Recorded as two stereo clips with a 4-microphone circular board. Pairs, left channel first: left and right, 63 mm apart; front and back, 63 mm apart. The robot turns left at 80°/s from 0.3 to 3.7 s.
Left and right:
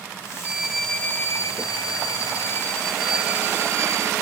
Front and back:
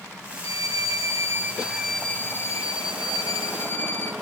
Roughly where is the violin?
Behind right.